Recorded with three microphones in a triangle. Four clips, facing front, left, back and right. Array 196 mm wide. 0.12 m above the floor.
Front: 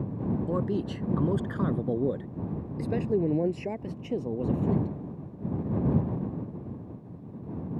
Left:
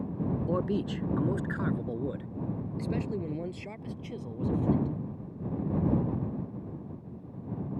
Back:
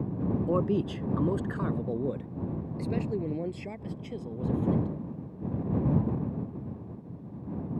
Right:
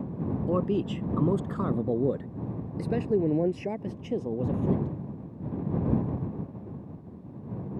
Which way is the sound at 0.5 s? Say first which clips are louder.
Right 5 dB, back 2 dB; 140° right.